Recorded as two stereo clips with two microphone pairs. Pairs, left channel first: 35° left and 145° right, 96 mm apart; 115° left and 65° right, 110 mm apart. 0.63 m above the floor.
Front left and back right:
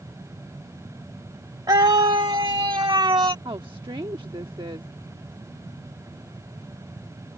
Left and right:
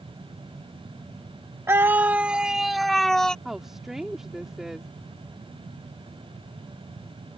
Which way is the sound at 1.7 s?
125° right.